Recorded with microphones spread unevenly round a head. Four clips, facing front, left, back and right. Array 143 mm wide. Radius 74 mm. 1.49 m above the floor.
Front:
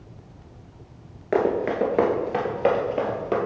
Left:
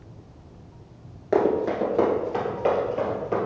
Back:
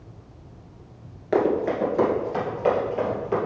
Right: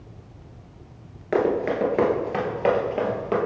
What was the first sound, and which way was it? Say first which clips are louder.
Running footsteps: even, even; 35° left.